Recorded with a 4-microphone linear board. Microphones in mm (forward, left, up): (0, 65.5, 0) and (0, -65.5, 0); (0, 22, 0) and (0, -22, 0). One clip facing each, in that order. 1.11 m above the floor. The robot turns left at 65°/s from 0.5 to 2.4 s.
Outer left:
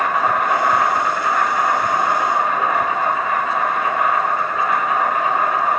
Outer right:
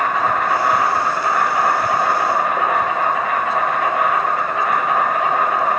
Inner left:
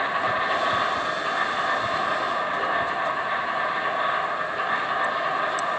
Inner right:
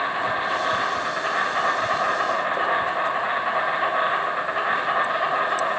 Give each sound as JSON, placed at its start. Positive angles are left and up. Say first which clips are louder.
{"t": 0.0, "sound": "an insect", "louder": "even, even", "azimuth_deg": 10, "distance_m": 0.9}